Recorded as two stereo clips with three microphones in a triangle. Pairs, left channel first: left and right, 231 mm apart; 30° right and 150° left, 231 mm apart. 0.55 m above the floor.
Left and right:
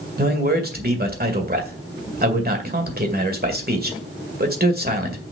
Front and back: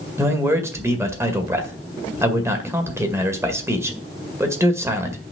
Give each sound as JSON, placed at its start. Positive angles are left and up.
{"t": 0.2, "sound": "a man speaking", "azimuth_deg": -130, "distance_m": 1.9}